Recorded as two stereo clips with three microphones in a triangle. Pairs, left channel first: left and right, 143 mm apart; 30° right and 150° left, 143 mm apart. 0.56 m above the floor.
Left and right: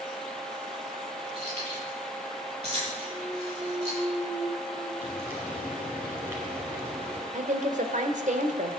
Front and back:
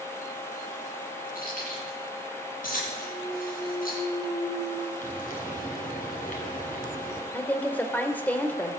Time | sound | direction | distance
1.4 | keys jangling | 45° right | 9 m
3.0 | a clunk | 30° left | 2.5 m
5.0 | frying | 15° right | 5.5 m
7.3 | a woman speaking | 110° right | 1.8 m